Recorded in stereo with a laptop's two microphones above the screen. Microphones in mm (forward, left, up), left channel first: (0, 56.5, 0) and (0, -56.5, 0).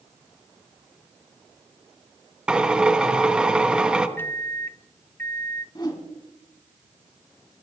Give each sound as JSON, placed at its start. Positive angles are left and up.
{"t": 2.5, "sound": "a drill", "side_deg": -10, "distance_m": 0.9}
{"t": 4.2, "sound": "a microwave", "side_deg": 20, "distance_m": 0.6}
{"t": 5.8, "sound": "a whoosh", "side_deg": 40, "distance_m": 3.5}